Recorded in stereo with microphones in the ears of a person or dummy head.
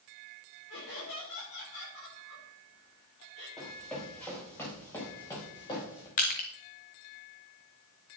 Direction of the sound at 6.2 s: 35° left (ahead or behind).